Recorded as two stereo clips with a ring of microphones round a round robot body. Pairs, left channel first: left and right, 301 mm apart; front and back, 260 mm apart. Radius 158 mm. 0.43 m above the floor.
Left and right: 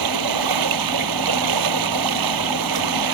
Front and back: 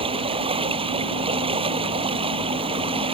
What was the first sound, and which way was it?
Running water, 105° right.